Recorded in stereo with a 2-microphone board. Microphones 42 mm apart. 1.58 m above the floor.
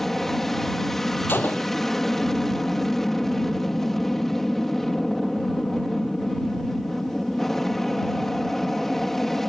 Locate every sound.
0.0 s an aircraft: 5° left (ahead or behind)
1.3 s a gunshot: 50° left (ahead or behind)